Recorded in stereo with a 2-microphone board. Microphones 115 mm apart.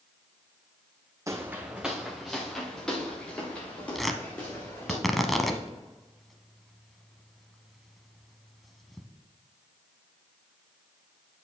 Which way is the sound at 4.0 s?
Centre (ahead or behind).